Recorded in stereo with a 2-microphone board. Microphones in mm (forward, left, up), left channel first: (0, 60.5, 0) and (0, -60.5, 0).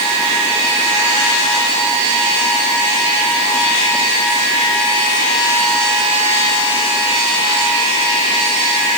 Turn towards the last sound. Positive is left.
No sound to turn to.